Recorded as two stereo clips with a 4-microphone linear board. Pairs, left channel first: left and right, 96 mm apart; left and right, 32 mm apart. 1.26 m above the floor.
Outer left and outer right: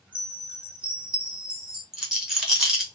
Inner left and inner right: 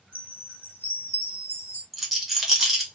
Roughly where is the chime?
Right.